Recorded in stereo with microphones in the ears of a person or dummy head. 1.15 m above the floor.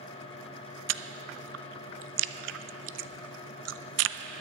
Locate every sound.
0.9 s chewing: 65° right (ahead or behind), 0.5 m